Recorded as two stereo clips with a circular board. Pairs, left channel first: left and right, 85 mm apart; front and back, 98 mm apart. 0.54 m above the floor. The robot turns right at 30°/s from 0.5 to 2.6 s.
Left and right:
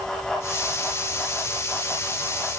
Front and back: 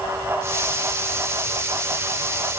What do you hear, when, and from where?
Only background noise.